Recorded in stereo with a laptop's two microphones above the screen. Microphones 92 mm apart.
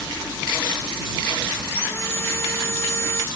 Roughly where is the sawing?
Left.